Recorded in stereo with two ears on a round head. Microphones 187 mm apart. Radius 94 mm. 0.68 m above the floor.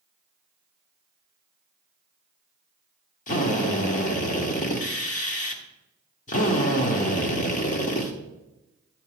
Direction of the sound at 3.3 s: 40° left (ahead or behind).